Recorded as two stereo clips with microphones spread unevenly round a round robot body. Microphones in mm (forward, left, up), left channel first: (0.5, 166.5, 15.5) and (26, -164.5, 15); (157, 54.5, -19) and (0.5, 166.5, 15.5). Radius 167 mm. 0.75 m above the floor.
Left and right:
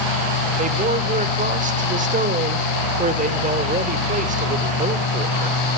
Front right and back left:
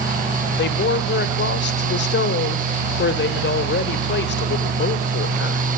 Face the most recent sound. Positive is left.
turn(degrees=-20)